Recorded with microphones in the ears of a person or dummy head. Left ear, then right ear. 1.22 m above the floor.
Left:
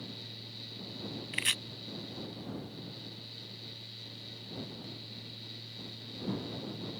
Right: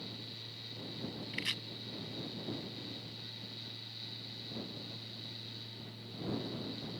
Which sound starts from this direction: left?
Chopping, at 1.3 s.